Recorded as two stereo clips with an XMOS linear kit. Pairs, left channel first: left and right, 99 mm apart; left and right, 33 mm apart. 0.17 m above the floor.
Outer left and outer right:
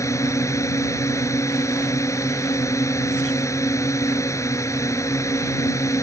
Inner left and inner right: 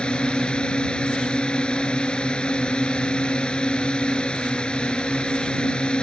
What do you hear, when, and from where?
0.0 s a drone: 30° left (ahead or behind)